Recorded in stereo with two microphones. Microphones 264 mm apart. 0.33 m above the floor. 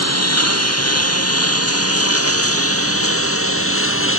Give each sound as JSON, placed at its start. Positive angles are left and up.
{"t": 0.0, "sound": "a lawn mower", "side_deg": 75}